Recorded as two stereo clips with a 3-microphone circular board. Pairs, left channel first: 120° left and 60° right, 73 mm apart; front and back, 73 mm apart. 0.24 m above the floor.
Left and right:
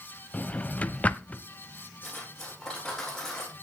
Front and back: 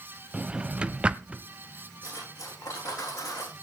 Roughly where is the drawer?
Behind left.